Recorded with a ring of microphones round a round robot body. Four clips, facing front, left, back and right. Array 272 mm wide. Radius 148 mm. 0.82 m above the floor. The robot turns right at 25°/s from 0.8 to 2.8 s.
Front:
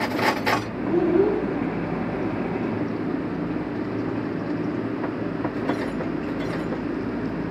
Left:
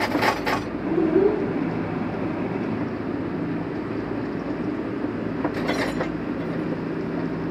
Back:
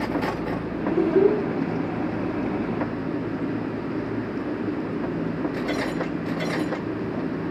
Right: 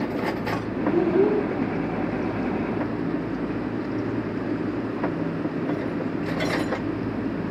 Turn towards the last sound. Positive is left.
turn(degrees=-155)